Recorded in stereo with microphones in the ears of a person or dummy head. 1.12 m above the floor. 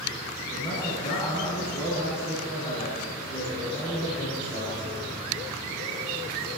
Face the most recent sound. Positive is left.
turn(degrees=35)  # may be behind; listen again after turning